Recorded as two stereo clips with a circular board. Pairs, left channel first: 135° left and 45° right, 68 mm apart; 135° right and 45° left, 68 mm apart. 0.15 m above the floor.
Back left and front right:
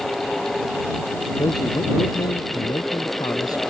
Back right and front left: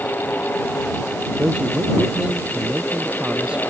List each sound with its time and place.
1.4 s a man speaking: 120° left